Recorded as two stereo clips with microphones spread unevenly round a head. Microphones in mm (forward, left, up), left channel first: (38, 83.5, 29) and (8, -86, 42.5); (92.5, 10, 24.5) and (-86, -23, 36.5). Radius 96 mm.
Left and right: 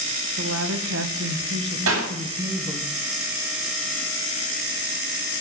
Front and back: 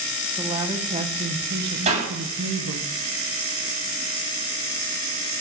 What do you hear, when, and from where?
0.4 s a woman speaking: 100° right, 2.5 m; by 2.9 s straight behind, 1.7 m
1.9 s a clap: 115° right, 9.5 m